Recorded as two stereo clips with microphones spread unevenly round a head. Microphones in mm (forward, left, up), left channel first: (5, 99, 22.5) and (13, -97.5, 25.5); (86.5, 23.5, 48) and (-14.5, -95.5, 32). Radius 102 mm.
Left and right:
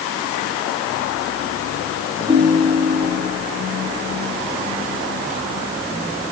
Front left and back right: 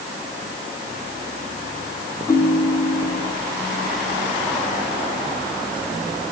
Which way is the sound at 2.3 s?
10° right.